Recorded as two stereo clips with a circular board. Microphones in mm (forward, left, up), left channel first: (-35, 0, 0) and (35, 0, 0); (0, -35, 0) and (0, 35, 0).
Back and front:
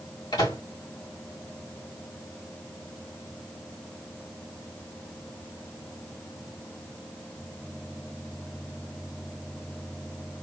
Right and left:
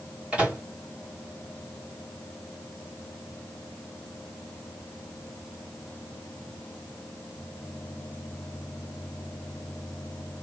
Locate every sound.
0.3 s a microwave: 160° left, 2.5 m